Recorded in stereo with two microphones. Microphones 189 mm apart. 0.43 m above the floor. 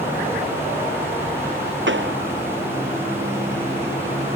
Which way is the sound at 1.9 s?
85° right.